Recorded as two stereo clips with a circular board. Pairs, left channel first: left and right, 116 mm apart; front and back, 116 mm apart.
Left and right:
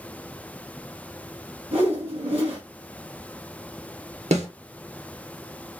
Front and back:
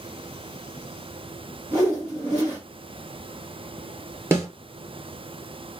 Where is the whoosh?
125° right, 2 m.